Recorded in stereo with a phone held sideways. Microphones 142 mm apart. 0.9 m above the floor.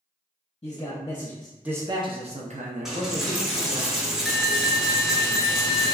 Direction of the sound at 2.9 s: 5° right (ahead or behind).